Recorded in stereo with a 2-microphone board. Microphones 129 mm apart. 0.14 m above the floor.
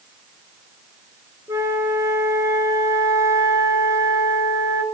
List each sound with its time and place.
1.5 s a flute: 25° right (ahead or behind), 1.2 m